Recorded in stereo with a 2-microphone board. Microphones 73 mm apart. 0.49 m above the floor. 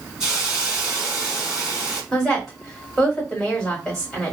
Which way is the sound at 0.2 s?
10° right (ahead or behind).